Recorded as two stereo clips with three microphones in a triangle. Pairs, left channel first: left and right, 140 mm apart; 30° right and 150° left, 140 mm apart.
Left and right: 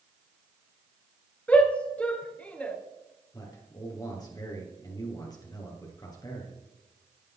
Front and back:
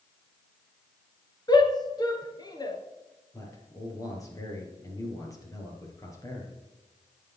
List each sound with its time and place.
1.5 s a shout: 15° left, 1.6 m
3.3 s a man speaking: 30° left, 3 m